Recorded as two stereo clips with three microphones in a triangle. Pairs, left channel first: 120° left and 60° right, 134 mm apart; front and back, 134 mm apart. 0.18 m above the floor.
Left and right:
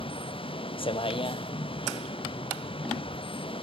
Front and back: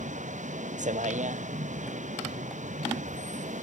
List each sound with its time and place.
0.0 s a vehicle: 165° left